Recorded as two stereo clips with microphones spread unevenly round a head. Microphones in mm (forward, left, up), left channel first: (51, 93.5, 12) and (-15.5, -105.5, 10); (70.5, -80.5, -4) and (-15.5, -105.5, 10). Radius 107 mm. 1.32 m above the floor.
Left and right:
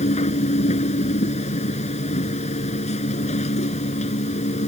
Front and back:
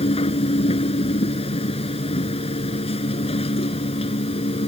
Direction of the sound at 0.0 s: 10° left.